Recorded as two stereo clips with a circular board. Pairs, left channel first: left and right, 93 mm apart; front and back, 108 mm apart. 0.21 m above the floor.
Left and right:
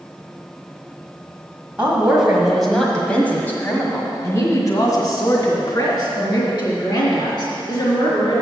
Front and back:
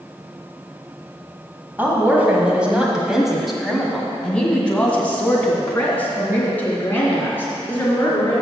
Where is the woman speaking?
145° right, 1.6 m; by 8.4 s 65° left, 3.5 m.